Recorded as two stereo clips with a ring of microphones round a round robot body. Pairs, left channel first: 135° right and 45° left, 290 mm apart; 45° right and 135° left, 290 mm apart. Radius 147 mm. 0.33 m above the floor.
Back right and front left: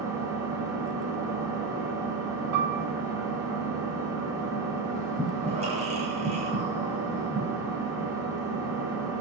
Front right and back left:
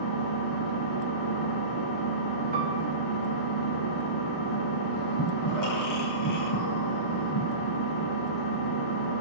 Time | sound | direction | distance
0.0 | an engine running | 35° right | 10 m
2.5 | a piano | 75° left | 3 m
5.2 | breathing | 25° right | 8.5 m